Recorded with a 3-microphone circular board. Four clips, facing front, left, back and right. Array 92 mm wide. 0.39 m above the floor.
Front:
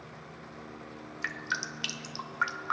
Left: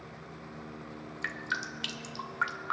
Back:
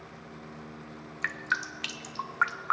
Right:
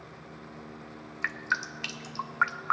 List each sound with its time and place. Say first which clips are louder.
1.2 s dripping: right 4 dB, back 4 dB; 120° right, 0.5 m